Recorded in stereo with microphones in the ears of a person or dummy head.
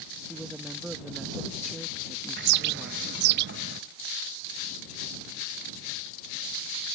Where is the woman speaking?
5° right (ahead or behind).